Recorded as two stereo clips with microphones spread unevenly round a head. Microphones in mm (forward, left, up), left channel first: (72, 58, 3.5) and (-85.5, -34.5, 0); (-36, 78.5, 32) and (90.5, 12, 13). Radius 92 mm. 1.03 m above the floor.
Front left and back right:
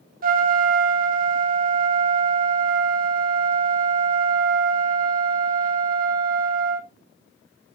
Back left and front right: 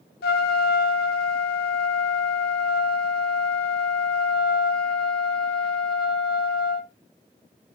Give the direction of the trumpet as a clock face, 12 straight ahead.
6 o'clock.